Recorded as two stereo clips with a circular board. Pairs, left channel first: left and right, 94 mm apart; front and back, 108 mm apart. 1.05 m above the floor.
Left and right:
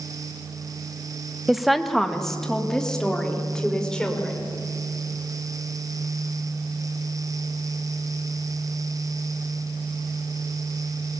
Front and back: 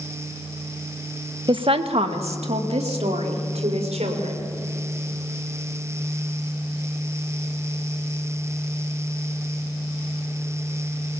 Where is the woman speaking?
175° right, 1.0 m; by 4.5 s 170° left, 5.5 m.